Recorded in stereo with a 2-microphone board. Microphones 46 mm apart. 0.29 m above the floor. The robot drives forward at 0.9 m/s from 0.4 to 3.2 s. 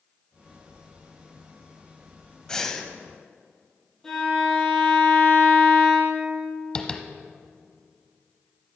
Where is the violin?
10° left (ahead or behind), 4.5 m.